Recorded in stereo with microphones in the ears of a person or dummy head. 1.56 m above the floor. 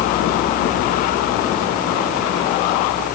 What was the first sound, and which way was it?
Only background noise.